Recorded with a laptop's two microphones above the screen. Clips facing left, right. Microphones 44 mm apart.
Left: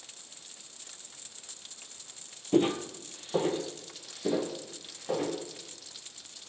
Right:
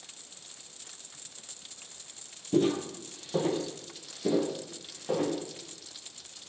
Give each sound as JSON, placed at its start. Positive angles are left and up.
{"t": 2.5, "sound": "footsteps", "side_deg": 30, "distance_m": 1.8}